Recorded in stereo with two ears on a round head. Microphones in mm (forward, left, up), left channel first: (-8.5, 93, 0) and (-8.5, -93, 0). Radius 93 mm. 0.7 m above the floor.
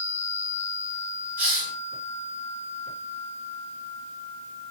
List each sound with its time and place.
1.4 s a hiss: 10° right (ahead or behind), 8 m